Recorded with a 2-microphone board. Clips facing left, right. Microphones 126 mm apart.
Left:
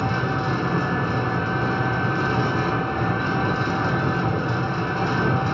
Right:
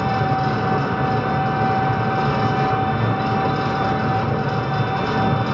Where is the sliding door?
No sliding door in this recording.